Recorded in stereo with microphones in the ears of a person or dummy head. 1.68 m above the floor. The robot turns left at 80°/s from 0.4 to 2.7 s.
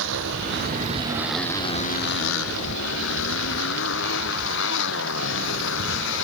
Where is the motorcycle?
75° right (ahead or behind); by 6.2 s 70° left (ahead or behind).